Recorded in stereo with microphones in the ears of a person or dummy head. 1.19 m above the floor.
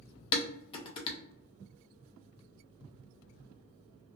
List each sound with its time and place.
0.3 s dishes clattering: 30° left (ahead or behind), 0.5 m